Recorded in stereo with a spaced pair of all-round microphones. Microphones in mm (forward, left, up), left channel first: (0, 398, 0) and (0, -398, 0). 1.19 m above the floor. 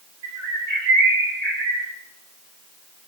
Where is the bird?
75° right (ahead or behind), 2.0 m.